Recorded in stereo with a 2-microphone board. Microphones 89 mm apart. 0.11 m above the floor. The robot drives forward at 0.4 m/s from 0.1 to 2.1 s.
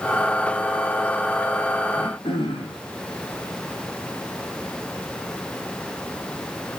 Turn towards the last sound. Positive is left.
turn(degrees=80)